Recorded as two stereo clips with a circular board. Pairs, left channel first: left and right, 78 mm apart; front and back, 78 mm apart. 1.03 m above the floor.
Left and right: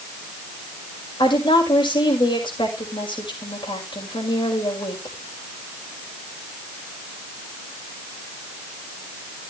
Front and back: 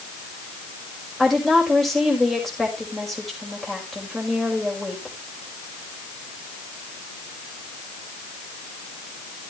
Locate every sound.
1.2 s a woman speaking: 85° left, 5.5 m